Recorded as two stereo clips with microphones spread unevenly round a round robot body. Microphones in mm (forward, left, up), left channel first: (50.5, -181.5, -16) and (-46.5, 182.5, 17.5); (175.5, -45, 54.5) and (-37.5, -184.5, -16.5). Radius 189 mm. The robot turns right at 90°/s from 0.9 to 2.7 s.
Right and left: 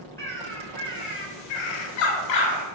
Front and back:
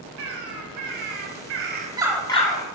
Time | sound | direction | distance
0.2 | a bird | 160° right | 0.6 m